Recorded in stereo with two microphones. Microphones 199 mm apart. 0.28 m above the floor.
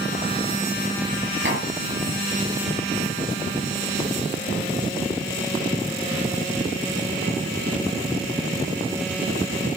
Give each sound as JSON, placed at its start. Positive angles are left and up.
{"t": 1.4, "sound": "tapping", "side_deg": -65, "distance_m": 7.0}